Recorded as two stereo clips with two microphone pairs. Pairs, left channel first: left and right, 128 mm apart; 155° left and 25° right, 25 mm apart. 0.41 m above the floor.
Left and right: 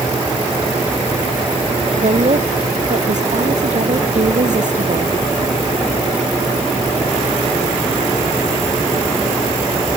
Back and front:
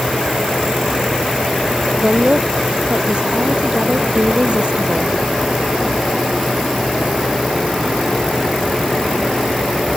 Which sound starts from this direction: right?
A woman speaking, at 2.0 s.